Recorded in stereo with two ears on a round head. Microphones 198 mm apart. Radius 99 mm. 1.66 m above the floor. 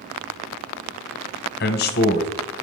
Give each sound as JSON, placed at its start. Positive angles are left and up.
{"t": 1.6, "sound": "a man speaking", "side_deg": 50, "distance_m": 1.0}